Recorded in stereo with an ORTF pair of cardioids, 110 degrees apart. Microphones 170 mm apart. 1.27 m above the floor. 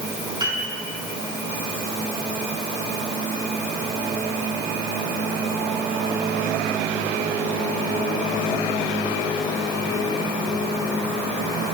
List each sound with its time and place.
0.4 s a piano: 25° right, 4 m